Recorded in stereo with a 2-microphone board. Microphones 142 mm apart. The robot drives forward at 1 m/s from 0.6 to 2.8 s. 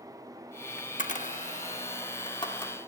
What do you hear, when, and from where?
0.8 s a camera shutter: 60° left (ahead or behind), 1.2 m; by 2.8 s 30° left (ahead or behind), 2 m